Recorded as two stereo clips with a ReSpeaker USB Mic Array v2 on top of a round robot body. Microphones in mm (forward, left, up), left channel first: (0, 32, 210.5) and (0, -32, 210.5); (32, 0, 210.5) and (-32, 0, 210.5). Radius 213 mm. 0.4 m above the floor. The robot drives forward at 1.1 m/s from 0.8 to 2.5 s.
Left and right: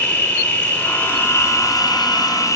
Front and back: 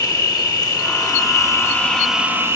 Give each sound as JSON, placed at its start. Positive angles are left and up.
{"t": 0.0, "sound": "an insect", "azimuth_deg": 25, "distance_m": 1.5}